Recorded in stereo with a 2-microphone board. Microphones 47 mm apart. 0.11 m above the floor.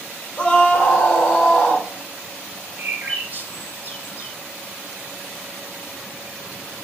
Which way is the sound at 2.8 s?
40° right (ahead or behind).